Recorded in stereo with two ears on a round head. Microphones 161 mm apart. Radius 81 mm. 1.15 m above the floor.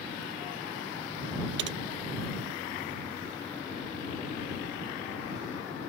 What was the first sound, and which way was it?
Typing on a keyboard, 65° right (ahead or behind).